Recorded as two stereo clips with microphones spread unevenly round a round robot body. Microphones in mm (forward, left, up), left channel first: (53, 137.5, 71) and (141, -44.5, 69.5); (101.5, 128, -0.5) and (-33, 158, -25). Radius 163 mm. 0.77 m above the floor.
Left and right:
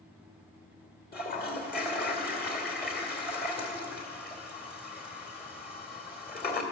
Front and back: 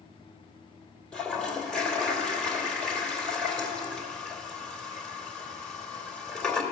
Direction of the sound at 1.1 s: 70° left.